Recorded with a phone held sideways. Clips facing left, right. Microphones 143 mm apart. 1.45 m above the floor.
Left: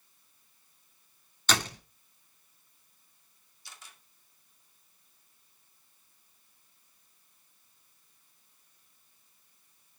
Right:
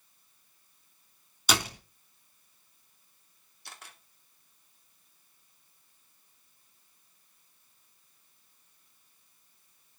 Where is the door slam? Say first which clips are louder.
Right 1 dB; 10° right (ahead or behind), 3 m.